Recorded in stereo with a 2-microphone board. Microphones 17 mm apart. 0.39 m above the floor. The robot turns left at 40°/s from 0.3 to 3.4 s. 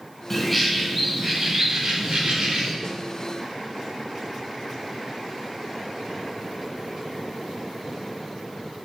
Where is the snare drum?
35° left (ahead or behind), 0.5 m.